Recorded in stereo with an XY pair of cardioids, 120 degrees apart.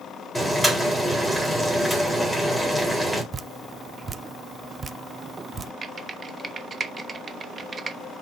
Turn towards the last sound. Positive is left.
turn(degrees=-35)